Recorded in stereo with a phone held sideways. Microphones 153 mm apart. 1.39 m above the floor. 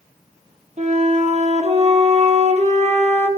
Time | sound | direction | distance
0.8 | a flute | 45° right (ahead or behind) | 1.1 m